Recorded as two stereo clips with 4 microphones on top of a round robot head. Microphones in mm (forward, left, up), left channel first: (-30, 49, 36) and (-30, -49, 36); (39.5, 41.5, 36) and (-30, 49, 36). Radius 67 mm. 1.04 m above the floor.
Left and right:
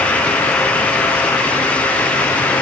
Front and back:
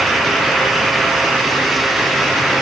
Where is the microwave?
No microwave in this recording.